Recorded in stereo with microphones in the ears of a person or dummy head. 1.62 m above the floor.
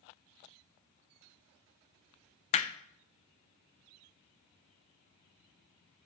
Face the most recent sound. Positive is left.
turn(degrees=40)  # may be behind; listen again after turning